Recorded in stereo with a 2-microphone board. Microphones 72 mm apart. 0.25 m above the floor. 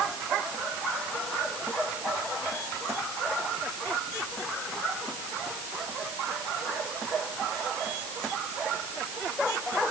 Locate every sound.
Only background noise.